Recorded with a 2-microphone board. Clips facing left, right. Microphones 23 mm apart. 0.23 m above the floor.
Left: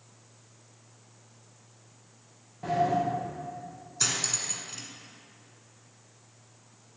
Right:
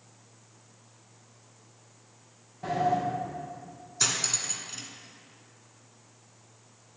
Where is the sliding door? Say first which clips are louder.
Even; centre (ahead or behind), 4.5 m.